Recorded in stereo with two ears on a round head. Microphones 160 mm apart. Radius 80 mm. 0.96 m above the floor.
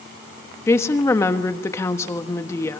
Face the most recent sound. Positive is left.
turn(degrees=15)  # may be behind; listen again after turning